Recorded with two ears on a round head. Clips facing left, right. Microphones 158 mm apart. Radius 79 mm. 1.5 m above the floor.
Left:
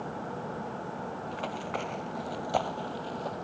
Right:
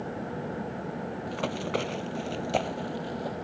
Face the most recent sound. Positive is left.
turn(degrees=-10)  # may be behind; listen again after turning